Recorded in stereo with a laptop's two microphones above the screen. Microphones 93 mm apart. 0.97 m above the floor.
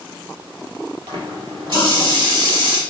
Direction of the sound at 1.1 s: 60° right (ahead or behind).